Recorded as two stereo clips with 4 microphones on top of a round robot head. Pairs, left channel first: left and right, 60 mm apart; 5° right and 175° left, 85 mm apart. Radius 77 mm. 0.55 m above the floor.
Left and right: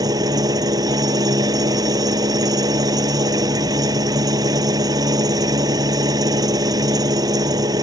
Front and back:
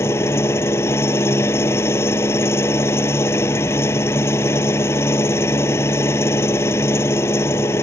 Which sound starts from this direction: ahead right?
An engine running, at 0.0 s.